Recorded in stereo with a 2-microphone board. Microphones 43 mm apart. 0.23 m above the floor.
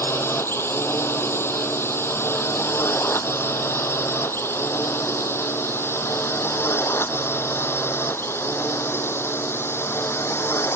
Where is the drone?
80° left.